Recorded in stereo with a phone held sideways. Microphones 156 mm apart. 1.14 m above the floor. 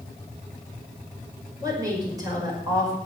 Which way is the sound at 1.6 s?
25° right (ahead or behind).